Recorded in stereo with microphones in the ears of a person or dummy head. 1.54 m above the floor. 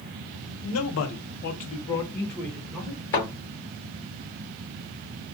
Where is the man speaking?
75° left (ahead or behind), 0.7 m; by 3.0 s centre (ahead or behind), 1.2 m.